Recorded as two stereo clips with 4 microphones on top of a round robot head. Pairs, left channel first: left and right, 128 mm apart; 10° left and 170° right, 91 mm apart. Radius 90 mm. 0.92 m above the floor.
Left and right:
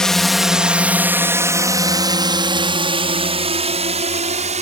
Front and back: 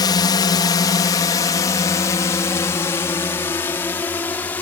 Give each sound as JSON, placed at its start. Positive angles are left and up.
{"t": 0.0, "sound": "a drone", "azimuth_deg": 5}